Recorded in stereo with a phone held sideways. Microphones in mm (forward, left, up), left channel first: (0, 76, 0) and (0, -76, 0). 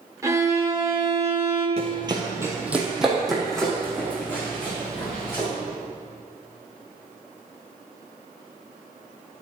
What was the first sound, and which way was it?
A violin, 20° right (ahead or behind).